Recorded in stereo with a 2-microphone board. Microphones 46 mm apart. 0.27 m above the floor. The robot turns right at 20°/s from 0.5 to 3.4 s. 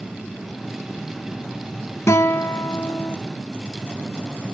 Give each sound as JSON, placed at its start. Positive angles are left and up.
{"t": 2.1, "sound": "a guitar", "side_deg": 70, "distance_m": 0.7}